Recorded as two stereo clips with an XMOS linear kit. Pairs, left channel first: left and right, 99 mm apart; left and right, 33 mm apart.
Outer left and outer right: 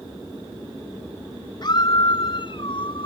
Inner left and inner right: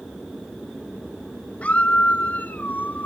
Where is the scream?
50° left (ahead or behind); by 3.1 s 65° left (ahead or behind).